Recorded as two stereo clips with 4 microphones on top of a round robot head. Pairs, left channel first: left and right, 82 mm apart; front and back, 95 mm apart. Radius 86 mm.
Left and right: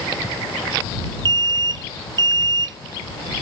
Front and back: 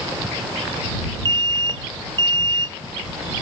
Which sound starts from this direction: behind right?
An alarm, at 1.2 s.